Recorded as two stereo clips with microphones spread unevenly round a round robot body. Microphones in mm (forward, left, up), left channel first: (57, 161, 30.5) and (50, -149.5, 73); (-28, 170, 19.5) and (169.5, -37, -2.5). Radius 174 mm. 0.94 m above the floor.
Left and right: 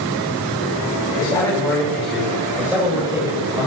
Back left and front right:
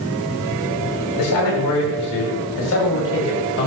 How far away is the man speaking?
About 5.5 m.